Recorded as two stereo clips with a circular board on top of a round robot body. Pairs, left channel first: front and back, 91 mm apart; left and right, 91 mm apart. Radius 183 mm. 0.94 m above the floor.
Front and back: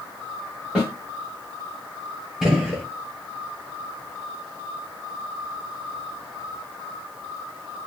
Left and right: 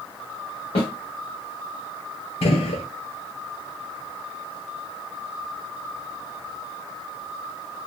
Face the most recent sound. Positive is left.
turn(degrees=95)